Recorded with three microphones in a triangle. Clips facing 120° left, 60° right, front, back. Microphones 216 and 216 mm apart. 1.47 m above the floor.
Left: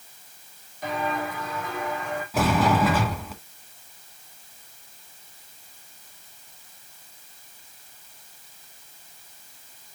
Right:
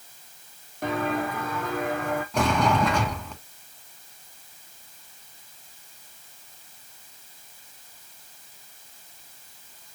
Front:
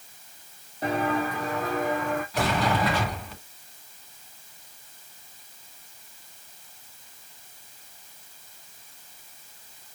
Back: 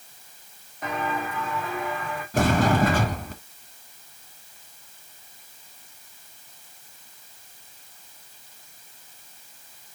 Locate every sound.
0.8 s footsteps: 55° right, 3 m; by 2.2 s 40° right, 3.5 m
2.3 s a sliding door: 155° right, 2 m